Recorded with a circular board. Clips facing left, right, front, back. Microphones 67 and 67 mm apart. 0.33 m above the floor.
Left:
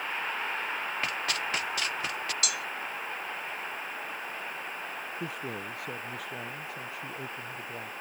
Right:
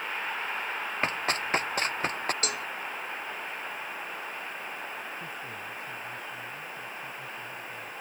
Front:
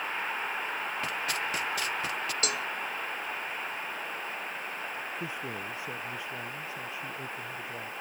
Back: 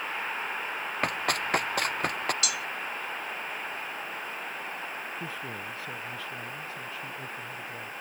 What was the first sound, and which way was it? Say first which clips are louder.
Running footsteps: right 2 dB, back 3 dB; 145° right.